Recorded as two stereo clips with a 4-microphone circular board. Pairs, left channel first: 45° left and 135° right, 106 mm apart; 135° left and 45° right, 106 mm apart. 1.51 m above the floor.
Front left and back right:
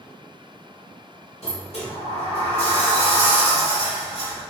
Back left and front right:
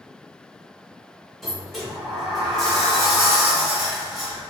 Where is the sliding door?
45° left, 1.2 m.